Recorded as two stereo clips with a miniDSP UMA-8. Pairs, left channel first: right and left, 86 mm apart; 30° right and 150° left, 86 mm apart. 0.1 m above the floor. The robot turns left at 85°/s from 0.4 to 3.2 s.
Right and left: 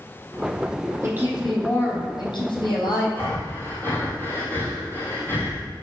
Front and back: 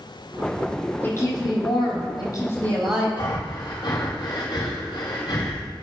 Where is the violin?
No violin in this recording.